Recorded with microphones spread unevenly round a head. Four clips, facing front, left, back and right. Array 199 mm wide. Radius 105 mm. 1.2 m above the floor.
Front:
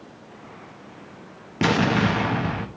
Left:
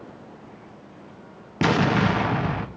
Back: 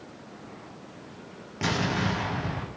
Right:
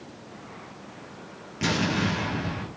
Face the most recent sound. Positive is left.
turn(degrees=30)